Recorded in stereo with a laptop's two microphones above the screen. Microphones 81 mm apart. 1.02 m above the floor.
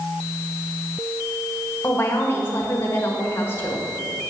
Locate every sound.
1.8 s a woman speaking: 30° left (ahead or behind), 1.4 m